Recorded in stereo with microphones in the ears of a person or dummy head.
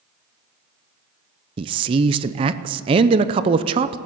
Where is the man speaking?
30° right (ahead or behind), 0.6 m.